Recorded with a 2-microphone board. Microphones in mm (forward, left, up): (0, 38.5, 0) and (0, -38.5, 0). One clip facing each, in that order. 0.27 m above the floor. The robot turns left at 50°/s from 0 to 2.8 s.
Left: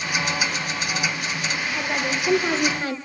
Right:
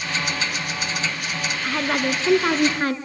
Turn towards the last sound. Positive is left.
turn(degrees=-120)